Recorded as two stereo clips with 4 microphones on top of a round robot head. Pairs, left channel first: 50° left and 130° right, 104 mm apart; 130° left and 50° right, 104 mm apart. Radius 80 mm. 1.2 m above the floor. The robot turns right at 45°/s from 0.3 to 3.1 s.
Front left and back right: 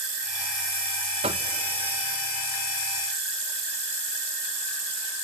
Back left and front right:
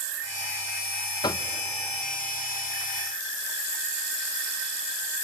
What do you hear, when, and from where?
1.2 s knocking: 175° right, 0.6 m; by 1.5 s 160° right, 0.6 m